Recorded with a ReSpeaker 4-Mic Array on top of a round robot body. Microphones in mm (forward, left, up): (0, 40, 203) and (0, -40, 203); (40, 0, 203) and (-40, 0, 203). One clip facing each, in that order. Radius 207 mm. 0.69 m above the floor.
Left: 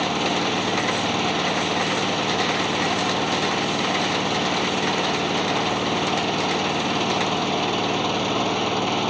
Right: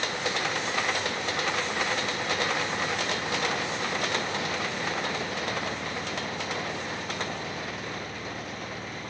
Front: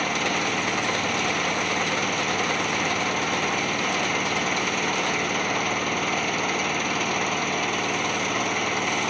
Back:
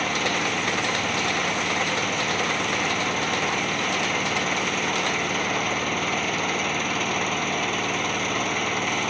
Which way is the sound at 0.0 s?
90° left.